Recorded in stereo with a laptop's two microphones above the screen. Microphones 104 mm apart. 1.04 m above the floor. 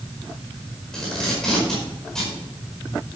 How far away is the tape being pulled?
About 5 m.